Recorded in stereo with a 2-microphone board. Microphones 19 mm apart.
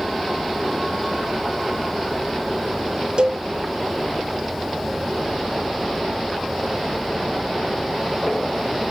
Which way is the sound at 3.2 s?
50° right (ahead or behind).